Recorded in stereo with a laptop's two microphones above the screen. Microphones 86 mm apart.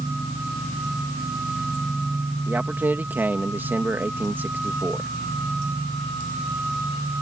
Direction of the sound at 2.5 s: 25° right (ahead or behind).